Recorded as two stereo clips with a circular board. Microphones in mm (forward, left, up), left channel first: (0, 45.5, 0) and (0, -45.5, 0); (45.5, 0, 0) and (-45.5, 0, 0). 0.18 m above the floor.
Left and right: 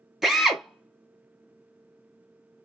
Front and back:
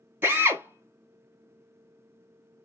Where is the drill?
175° right, 0.8 m.